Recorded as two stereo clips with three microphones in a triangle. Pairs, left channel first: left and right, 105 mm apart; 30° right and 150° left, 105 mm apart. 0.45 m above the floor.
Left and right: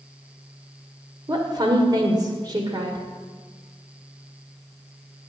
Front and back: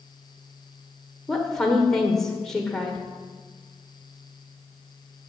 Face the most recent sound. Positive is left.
turn(degrees=-115)